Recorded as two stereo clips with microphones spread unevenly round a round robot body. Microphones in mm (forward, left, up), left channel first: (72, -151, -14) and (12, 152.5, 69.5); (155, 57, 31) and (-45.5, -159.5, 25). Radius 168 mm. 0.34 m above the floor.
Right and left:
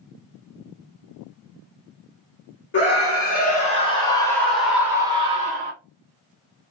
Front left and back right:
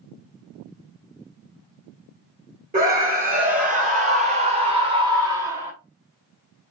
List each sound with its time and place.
2.7 s a scream: 85° right, 1.9 m; by 5.7 s 160° left, 1.4 m